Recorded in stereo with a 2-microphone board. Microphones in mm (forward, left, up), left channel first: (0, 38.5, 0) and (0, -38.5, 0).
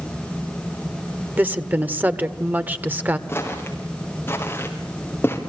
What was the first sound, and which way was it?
A woman speaking, 25° right (ahead or behind).